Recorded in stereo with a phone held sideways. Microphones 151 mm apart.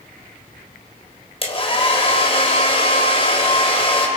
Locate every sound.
1.4 s a hair dryer: 40° left (ahead or behind), 3 m